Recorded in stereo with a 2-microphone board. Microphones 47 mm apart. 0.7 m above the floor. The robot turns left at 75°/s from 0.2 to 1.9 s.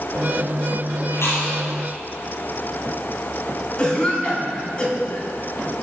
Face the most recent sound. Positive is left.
turn(degrees=25)  # may be behind; listen again after turning